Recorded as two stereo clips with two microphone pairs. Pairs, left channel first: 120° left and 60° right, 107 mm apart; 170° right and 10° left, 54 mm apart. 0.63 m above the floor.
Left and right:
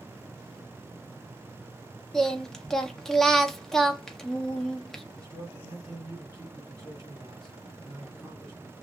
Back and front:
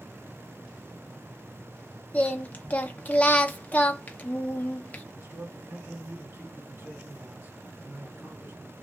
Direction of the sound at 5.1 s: 15° right.